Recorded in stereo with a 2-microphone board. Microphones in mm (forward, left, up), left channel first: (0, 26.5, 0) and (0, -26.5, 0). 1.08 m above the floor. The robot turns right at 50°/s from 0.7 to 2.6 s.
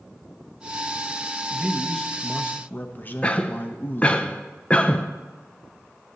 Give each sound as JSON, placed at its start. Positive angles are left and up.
{"t": 1.5, "sound": "a man speaking", "azimuth_deg": -15, "distance_m": 0.9}
{"t": 3.2, "sound": "a cough", "side_deg": 25, "distance_m": 0.6}